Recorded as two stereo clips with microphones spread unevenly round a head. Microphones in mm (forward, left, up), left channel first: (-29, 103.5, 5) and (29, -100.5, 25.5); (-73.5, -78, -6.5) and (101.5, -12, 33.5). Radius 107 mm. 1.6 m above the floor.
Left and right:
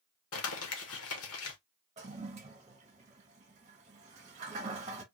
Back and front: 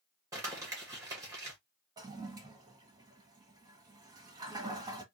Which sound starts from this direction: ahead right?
A toilet flushing, at 2.0 s.